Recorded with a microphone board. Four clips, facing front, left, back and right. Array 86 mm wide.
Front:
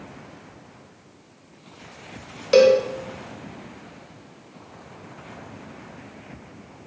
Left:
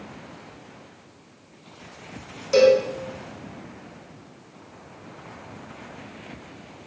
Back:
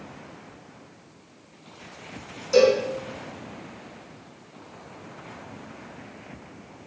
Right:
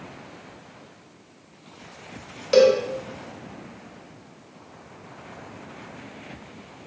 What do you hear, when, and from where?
2.5 s a cowbell: 30° right, 0.8 m